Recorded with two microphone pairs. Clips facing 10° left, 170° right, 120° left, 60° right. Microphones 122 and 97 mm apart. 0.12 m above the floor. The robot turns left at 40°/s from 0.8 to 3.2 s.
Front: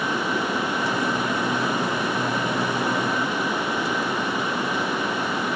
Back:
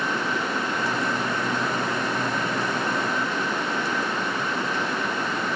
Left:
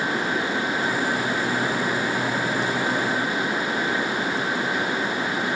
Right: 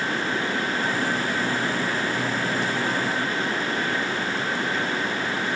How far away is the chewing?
No chewing in this recording.